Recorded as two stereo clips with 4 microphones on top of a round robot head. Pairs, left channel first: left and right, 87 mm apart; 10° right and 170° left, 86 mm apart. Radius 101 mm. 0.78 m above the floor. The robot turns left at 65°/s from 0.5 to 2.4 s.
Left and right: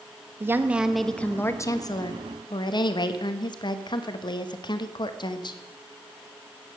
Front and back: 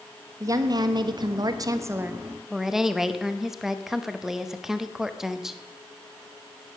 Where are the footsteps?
No footsteps in this recording.